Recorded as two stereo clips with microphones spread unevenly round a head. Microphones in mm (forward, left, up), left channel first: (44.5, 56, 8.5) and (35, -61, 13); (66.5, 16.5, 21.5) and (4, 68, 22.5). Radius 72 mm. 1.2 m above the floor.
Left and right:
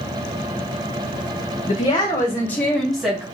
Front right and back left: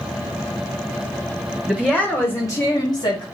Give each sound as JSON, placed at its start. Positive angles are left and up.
{"t": 1.7, "sound": "a woman speaking", "azimuth_deg": 45, "distance_m": 1.3}